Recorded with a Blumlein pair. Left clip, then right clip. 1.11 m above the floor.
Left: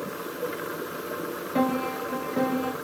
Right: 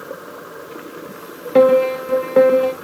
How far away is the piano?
About 1.1 m.